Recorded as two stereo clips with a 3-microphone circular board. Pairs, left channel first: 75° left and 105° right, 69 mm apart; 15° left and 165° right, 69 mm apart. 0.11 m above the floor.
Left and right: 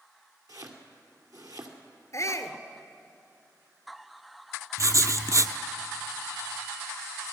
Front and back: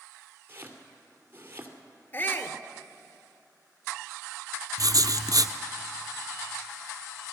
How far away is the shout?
About 1.5 m.